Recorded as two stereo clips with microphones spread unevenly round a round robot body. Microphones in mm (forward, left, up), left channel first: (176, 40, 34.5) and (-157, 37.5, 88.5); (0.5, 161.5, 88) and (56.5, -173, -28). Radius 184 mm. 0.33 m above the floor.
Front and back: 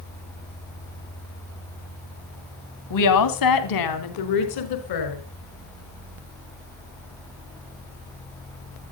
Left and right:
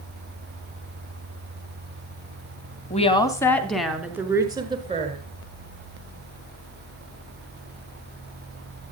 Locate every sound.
2.9 s a woman speaking: 20° left, 3 m; by 5.2 s 10° right, 5 m